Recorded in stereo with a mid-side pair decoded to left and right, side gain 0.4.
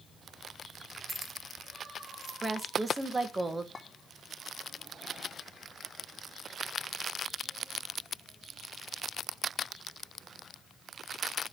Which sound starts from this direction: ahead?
Keys jangling, at 1.1 s.